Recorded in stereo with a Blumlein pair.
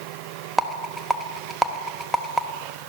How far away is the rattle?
About 1.2 m.